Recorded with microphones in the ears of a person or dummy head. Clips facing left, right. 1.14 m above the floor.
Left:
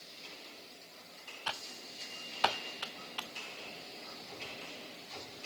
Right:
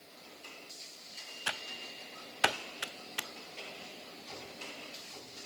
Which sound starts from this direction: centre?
Typing on a keyboard, at 1.5 s.